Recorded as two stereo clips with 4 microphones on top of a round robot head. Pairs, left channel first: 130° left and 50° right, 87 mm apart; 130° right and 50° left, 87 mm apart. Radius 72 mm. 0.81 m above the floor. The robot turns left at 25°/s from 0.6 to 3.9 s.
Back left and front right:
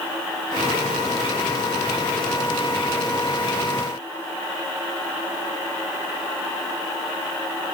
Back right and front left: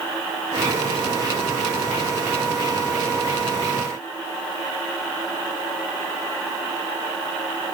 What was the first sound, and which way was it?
Only background noise.